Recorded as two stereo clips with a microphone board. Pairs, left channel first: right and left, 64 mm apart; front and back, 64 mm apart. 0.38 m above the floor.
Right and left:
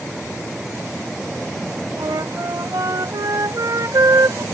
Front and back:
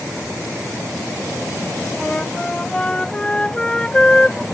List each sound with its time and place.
2.0 s a flute: 75° left